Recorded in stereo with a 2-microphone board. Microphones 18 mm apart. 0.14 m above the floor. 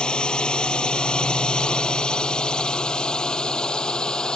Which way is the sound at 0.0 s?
65° left (ahead or behind).